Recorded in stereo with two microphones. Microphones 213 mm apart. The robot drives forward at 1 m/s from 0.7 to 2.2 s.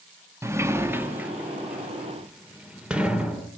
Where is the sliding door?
15° right (ahead or behind), 0.9 m; by 3.5 s 5° right (ahead or behind), 2 m.